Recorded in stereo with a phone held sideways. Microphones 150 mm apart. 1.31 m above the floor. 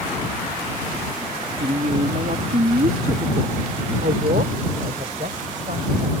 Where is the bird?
I don't hear a bird.